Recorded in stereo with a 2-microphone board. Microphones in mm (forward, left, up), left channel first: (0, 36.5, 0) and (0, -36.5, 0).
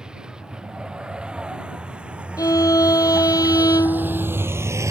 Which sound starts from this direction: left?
A violin, at 2.4 s.